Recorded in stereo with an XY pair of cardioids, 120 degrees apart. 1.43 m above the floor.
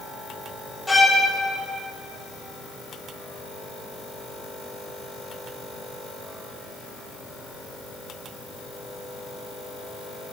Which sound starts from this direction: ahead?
A violin, at 0.9 s.